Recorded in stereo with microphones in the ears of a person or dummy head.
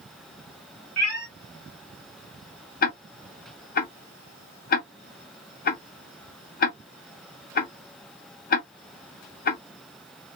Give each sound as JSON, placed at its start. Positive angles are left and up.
{"t": 1.0, "sound": "a cat meowing", "side_deg": 5, "distance_m": 1.2}
{"t": 2.8, "sound": "ticking", "side_deg": 45, "distance_m": 0.6}